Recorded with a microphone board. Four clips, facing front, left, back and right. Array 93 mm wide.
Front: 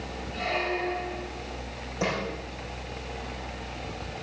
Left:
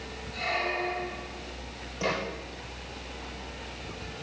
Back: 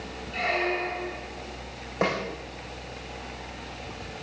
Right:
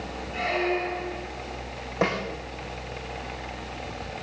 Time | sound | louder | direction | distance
0.3 | a squeak | right 4 dB, back 2 dB | 155° right | 5 m
2.0 | a snare drum | right 4 dB, back 3 dB | 130° right | 5.5 m